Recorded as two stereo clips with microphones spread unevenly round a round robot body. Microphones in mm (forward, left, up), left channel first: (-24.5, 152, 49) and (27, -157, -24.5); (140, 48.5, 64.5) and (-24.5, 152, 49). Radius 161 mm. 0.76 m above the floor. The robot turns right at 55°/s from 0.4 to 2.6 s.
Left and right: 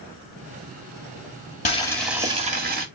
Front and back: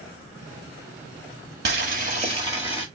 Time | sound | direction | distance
1.6 | boiling | 175° left | 1.6 m